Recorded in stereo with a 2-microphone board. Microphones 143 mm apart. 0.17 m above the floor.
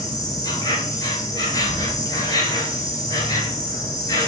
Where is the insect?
30° left (ahead or behind), 1.0 m.